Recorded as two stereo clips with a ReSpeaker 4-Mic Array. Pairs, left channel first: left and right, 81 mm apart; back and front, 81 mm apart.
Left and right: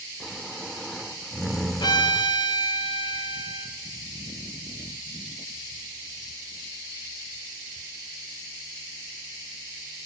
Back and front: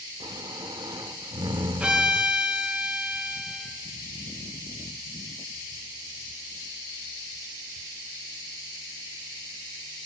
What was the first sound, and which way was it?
Snoring, straight ahead.